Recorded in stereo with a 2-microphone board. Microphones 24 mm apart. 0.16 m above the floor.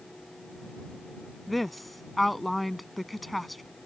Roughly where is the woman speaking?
Centre.